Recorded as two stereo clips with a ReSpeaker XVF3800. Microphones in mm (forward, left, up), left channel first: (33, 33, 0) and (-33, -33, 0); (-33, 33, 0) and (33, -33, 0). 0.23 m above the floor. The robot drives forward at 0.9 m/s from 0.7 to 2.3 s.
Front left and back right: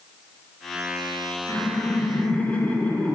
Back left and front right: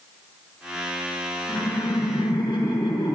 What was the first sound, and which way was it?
Laughter, 100° left.